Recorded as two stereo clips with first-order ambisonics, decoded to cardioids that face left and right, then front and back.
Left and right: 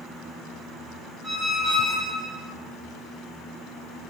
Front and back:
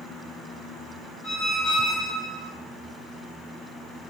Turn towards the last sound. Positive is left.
turn(degrees=-40)